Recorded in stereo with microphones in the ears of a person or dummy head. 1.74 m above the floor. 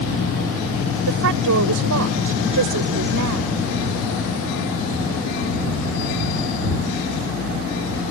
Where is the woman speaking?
60° right (ahead or behind).